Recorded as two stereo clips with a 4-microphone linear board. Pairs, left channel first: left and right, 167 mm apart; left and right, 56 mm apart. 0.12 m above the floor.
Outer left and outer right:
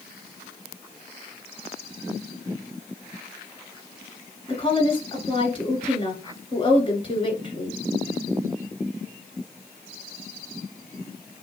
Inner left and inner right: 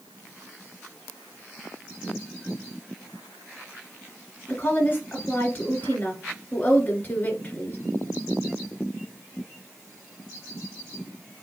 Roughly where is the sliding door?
I don't hear a sliding door.